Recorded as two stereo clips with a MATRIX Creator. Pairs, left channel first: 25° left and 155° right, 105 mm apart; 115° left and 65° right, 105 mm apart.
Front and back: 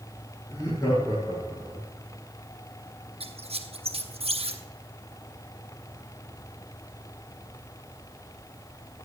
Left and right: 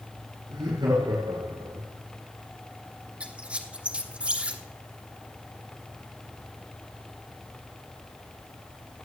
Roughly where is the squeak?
Behind right.